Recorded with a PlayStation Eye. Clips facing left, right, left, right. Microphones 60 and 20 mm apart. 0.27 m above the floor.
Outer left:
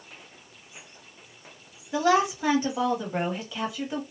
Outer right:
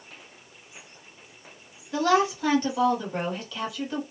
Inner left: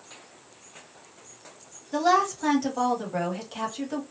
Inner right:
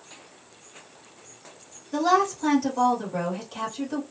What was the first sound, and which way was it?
A woman speaking, 15° left (ahead or behind).